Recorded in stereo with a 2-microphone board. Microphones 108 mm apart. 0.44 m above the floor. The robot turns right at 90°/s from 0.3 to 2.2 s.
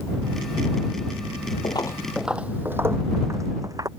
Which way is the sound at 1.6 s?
50° left (ahead or behind).